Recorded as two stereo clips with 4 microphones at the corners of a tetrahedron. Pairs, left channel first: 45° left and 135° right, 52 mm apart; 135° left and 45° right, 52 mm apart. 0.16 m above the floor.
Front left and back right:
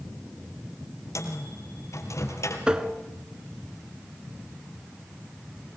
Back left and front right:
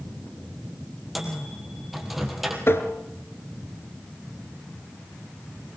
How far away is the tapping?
About 1.9 m.